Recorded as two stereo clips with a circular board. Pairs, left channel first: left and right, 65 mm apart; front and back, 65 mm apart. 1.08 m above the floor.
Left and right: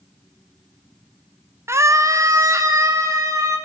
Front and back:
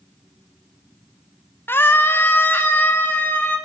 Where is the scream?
50° right, 0.7 m; by 3.6 s 60° right, 3.5 m.